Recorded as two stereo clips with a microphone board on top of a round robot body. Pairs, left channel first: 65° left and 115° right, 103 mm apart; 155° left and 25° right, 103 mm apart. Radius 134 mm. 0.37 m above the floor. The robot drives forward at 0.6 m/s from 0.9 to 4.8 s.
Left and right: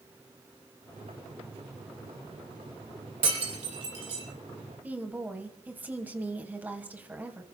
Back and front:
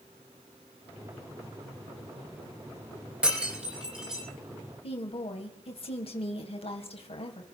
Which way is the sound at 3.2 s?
105° right.